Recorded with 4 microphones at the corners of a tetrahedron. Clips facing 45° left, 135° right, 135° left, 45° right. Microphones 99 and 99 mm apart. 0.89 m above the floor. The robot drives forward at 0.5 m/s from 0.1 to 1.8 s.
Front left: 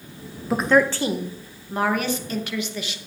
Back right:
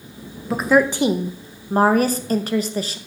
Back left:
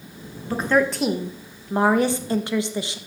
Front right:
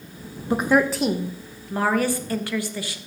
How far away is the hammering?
No hammering in this recording.